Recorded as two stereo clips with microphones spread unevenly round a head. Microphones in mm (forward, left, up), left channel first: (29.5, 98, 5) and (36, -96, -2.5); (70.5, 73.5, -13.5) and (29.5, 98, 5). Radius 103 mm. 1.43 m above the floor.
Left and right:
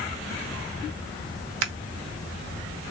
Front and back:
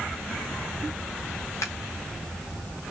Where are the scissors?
80° right, 1.2 m.